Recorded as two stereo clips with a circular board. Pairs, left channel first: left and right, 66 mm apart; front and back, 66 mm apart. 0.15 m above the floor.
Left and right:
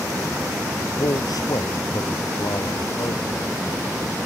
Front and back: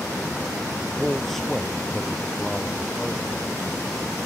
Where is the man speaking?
85° left.